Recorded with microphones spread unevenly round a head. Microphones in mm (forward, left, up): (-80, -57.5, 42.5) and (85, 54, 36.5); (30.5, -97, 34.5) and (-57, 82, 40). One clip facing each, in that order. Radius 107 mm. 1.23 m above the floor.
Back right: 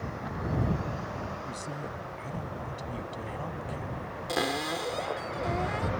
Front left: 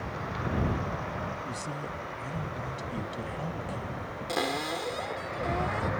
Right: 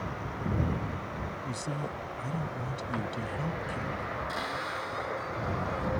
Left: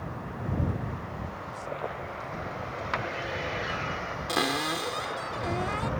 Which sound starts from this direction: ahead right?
A man speaking, at 1.4 s.